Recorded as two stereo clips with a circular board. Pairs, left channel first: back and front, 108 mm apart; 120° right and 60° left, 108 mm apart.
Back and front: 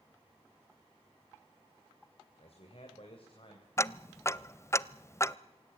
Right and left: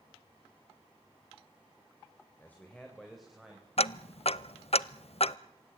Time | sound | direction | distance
2.4 | a man speaking | 170° left | 3 m
3.8 | ticking | 115° right | 0.5 m